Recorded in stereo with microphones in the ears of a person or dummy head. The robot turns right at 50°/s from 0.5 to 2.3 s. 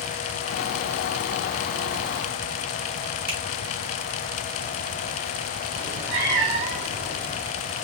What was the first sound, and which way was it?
A finger snap, 80° right.